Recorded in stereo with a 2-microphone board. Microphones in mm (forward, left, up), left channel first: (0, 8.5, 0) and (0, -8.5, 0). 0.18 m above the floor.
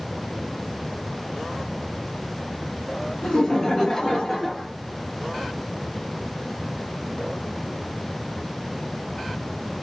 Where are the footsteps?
No footsteps in this recording.